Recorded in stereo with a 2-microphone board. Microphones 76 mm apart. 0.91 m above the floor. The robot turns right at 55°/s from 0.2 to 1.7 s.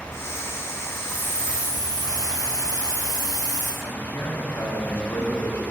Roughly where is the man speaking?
Left.